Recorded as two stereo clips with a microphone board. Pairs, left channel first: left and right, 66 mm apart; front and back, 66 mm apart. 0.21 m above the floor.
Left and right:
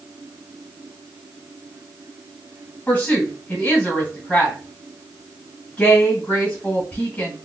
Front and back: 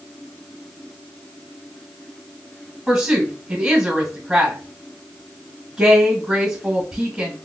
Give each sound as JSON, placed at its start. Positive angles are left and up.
{"t": 2.9, "sound": "a woman speaking", "azimuth_deg": 110, "distance_m": 1.6}